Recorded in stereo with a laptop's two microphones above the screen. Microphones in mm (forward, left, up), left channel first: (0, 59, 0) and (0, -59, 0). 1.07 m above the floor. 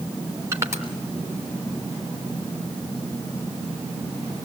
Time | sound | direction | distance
0.5 | crushing | 25° right (ahead or behind) | 3.5 m